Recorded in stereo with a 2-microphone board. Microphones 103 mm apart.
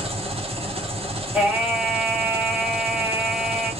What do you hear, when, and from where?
0.0 s an engine running: 70° right (ahead or behind), 0.9 m
1.3 s singing: 5° right (ahead or behind), 1.6 m